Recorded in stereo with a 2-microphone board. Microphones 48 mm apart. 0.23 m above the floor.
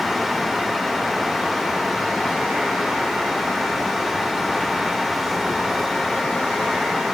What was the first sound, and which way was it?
Only background noise.